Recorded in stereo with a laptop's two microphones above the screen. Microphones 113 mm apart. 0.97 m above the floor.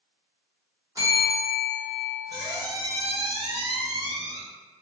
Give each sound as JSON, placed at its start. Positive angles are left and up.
{"t": 0.9, "sound": "a bell", "side_deg": -25, "distance_m": 1.2}
{"t": 2.3, "sound": "a squeak", "side_deg": -35, "distance_m": 0.8}